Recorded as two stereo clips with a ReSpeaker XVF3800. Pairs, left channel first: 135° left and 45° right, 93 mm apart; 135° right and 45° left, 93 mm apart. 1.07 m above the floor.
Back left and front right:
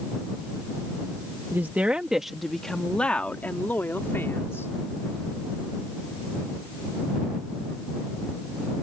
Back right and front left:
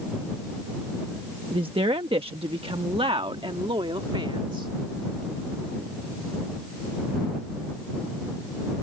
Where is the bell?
I don't hear a bell.